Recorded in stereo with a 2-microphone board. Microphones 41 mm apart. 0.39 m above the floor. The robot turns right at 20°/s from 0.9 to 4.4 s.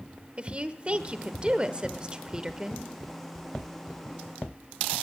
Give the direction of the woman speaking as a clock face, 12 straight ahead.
2 o'clock.